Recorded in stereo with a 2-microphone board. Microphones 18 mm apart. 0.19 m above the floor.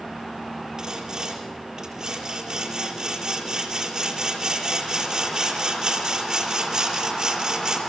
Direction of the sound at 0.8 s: 30° right (ahead or behind).